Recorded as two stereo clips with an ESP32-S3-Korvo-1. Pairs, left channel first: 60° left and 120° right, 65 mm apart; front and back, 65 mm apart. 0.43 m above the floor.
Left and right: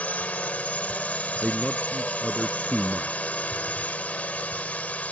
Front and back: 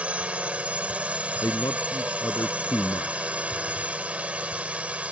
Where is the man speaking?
30° right.